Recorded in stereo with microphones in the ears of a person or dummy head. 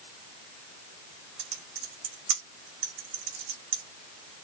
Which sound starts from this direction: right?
Typing on a keyboard, at 1.4 s.